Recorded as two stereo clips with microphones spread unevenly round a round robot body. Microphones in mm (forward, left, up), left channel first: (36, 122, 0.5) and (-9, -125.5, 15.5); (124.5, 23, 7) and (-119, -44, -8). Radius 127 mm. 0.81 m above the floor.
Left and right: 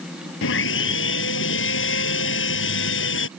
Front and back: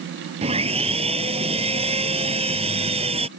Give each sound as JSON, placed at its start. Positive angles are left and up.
{"t": 0.4, "sound": "sawing", "azimuth_deg": 125}